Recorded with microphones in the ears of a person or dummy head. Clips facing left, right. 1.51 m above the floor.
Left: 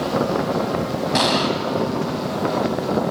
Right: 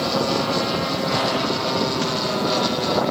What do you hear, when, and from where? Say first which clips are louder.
1.1 s an explosion: left 5 dB; 60° left (ahead or behind), 2.5 m